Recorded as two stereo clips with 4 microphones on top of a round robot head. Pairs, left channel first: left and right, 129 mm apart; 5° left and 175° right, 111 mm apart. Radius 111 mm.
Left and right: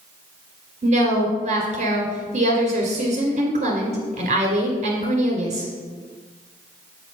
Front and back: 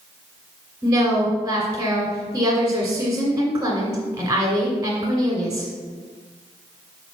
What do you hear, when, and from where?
0.8 s a woman speaking: 110° right, 1.6 m